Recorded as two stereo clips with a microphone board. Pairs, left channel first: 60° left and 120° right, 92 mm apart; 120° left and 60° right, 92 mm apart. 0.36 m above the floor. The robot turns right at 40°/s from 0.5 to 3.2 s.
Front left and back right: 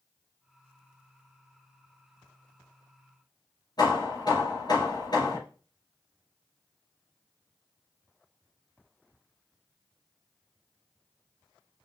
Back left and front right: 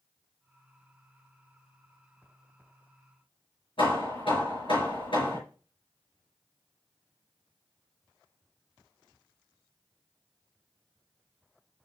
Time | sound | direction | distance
3.8 | hammering | 100° left | 4.5 m